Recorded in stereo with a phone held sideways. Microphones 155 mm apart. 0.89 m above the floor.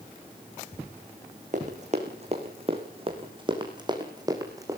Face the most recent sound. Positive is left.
turn(degrees=-20)  # may be behind; listen again after turning